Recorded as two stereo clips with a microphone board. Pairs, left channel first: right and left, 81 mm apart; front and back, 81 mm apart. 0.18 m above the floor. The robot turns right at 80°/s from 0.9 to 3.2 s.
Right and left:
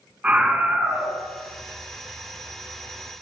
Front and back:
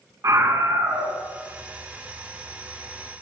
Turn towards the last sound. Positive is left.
turn(degrees=-15)